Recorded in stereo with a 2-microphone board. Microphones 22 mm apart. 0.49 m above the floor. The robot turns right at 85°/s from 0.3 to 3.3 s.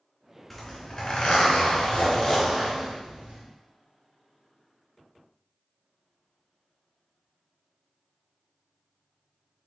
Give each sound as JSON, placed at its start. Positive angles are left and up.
{"t": 0.5, "sound": "a zipper", "azimuth_deg": 5, "distance_m": 1.8}